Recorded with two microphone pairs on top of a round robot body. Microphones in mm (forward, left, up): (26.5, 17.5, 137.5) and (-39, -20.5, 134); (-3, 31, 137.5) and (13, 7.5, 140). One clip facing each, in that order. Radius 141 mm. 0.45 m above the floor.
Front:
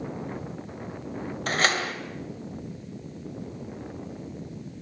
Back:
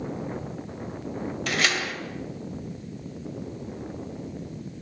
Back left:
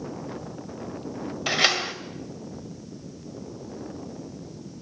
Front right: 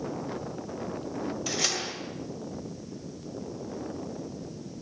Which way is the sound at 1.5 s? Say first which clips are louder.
Front 2 dB, back left 11 dB; 85° left.